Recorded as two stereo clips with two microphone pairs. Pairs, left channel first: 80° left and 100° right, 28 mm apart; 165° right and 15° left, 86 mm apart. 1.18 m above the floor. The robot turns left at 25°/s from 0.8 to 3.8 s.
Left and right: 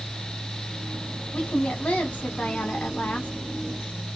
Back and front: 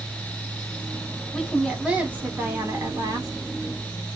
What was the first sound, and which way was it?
A woman speaking, 105° left.